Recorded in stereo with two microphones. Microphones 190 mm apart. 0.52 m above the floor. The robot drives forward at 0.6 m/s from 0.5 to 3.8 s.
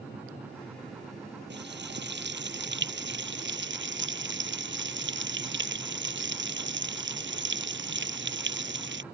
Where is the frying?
65° right (ahead or behind); by 9.0 s 75° right (ahead or behind).